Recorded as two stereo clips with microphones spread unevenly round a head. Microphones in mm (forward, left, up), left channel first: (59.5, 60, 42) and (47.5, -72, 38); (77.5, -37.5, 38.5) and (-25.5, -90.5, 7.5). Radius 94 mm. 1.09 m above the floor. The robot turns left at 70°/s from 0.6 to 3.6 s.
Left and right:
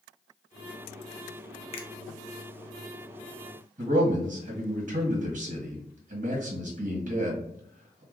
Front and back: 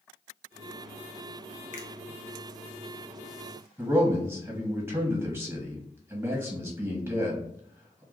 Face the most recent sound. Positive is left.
turn(degrees=-95)